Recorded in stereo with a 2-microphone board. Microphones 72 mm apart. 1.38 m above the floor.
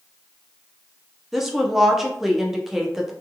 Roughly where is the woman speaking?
Centre.